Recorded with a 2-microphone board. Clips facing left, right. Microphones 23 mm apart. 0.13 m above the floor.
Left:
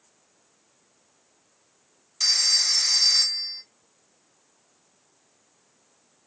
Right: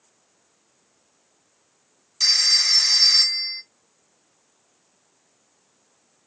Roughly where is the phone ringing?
Right.